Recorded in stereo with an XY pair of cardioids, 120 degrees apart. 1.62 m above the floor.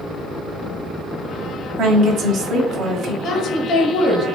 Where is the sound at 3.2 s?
65° left, 1.2 m.